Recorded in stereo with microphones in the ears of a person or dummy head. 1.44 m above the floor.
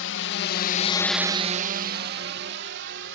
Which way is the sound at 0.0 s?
70° left (ahead or behind).